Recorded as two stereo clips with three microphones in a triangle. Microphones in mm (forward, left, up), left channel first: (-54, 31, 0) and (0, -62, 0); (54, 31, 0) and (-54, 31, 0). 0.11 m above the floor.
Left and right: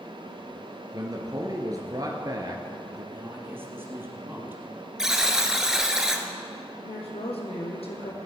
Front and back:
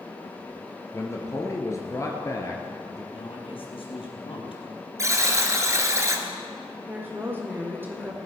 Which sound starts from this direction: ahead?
A man speaking, at 3.1 s.